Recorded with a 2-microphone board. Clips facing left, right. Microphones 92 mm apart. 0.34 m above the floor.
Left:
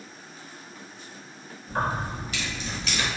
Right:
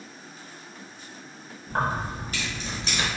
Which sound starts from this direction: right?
Keys jangling, at 1.7 s.